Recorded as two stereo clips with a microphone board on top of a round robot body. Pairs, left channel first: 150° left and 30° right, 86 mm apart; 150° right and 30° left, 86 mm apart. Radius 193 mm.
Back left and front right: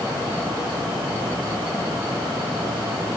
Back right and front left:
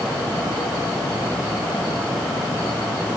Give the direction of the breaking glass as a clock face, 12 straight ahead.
I don't hear breaking glass.